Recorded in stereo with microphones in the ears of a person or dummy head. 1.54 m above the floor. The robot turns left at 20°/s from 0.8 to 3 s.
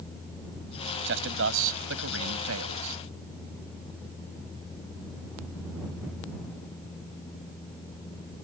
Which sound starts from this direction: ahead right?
A man speaking, at 1.1 s.